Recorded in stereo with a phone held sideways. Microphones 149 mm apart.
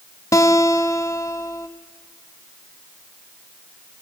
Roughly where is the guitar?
Left.